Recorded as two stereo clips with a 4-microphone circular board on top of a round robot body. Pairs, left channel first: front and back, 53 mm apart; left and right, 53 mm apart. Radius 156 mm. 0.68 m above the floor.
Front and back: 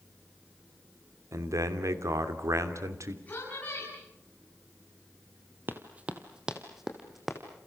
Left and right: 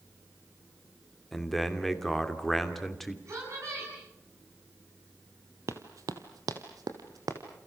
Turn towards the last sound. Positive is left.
turn(degrees=-90)